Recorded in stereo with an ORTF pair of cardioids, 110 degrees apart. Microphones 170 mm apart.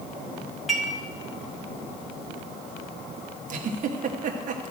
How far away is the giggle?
About 1.3 m.